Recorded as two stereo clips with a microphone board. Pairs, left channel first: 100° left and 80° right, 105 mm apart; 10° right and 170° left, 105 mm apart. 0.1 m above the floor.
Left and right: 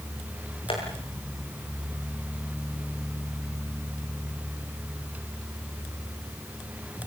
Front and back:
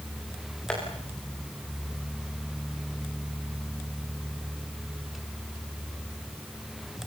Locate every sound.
0.7 s tapping: 70° left, 8 m